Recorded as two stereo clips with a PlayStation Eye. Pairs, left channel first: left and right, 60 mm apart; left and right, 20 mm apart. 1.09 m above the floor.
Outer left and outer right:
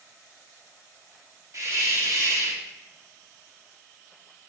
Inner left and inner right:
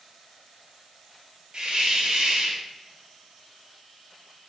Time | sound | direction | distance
1.5 | a hiss | 55° right (ahead or behind) | 0.8 m